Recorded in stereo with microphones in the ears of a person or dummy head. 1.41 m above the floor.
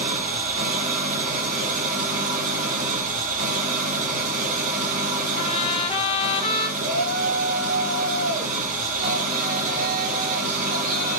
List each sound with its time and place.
0.0 s an engine running: 45° right (ahead or behind), 1.0 m
5.4 s a trumpet: 30° left (ahead or behind), 0.7 m
6.8 s a shout: 65° right (ahead or behind), 1.9 m